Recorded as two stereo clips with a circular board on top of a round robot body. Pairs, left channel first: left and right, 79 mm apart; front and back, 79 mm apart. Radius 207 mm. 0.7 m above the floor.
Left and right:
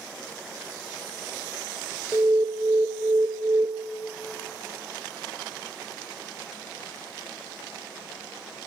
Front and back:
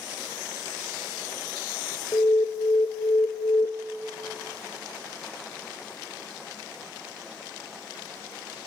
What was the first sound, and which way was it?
An alarm, 40° right.